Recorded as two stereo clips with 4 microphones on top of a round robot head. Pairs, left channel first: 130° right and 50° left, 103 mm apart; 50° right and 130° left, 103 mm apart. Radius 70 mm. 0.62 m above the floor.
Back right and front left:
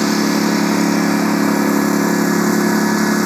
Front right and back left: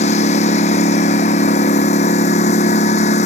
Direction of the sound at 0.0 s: 45° right.